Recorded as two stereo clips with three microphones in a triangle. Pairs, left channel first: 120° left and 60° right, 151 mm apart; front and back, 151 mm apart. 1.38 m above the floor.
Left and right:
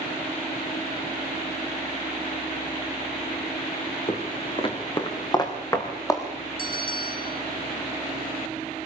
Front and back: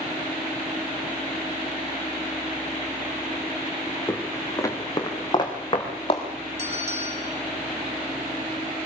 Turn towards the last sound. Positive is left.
turn(degrees=135)